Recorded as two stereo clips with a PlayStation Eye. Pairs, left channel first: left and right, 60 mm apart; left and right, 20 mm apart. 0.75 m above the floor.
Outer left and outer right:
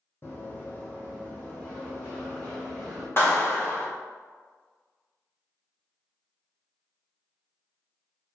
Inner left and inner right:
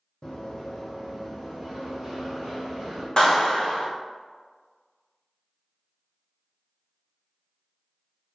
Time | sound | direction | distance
0.2 | running footsteps | 40° left (ahead or behind) | 1.6 m
3.2 | a clap | 40° left (ahead or behind) | 1.1 m